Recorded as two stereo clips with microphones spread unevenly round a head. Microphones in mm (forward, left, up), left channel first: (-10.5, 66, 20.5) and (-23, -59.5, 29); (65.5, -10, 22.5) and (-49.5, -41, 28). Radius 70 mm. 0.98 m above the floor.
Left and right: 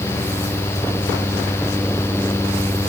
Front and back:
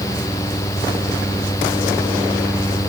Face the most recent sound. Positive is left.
No sound to turn to.